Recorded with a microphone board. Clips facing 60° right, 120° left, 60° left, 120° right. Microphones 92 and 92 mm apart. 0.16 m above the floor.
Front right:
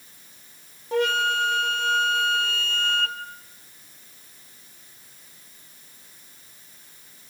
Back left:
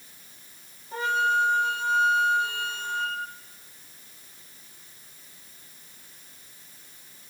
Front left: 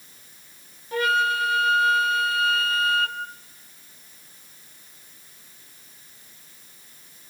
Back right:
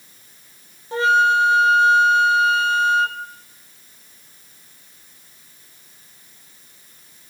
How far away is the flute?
About 1.2 m.